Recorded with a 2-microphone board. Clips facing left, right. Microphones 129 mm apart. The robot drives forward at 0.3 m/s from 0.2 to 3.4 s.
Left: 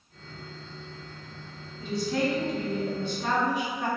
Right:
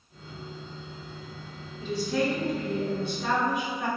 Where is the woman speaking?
25° left (ahead or behind), 1.1 m; by 3.9 s 20° left (ahead or behind), 1.4 m.